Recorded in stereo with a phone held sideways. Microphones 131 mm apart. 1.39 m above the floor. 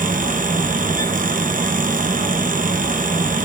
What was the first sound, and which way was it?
A fan, 85° right.